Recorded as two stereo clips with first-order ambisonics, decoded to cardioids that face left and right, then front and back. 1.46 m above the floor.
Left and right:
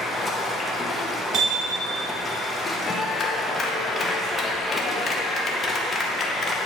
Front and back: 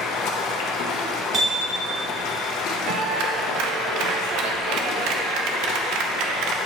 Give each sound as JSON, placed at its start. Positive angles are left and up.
{"t": 0.0, "sound": "running water", "azimuth_deg": 15, "distance_m": 0.8}
{"t": 1.3, "sound": "hammering", "azimuth_deg": -130, "distance_m": 1.4}
{"t": 2.9, "sound": "a clap", "azimuth_deg": 155, "distance_m": 0.7}